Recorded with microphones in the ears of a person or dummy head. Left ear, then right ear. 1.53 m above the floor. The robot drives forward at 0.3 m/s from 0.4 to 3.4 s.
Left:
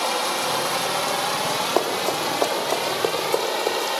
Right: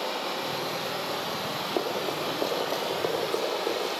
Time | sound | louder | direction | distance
0.0 | running water | left 7 dB | 60° left (ahead or behind) | 1.7 m
1.8 | running footsteps | left 7 dB | 55° left (ahead or behind) | 3 m